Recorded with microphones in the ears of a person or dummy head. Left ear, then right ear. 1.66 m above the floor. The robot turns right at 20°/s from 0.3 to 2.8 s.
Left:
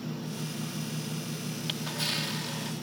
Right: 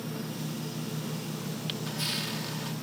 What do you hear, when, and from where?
1.7 s a camera shutter: 30° left (ahead or behind); by 2.7 s 5° left (ahead or behind)